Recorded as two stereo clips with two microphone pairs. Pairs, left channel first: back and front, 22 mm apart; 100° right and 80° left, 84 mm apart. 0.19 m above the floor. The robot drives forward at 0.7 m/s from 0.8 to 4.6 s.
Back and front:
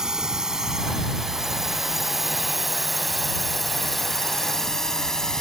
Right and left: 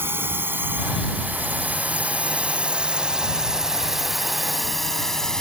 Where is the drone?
40° left; by 5.4 s 175° right.